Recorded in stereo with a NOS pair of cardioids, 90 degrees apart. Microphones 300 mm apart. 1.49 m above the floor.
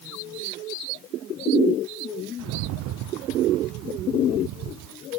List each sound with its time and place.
2.4 s a rattle: 65° right, 0.5 m